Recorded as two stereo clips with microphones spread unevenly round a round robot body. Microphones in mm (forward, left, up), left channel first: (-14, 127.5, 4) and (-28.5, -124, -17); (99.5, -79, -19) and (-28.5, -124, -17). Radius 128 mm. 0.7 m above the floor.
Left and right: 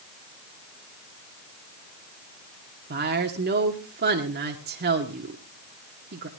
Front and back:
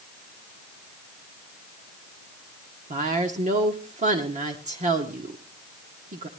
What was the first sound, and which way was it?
A woman speaking, 135° right.